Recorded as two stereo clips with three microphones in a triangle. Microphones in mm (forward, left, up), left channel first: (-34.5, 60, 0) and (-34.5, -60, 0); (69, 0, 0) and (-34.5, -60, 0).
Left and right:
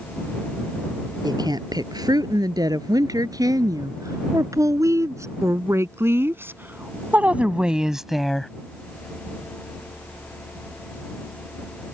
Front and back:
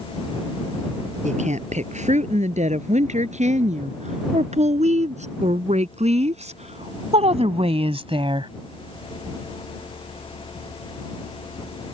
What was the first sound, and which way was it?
A woman speaking, 145° right.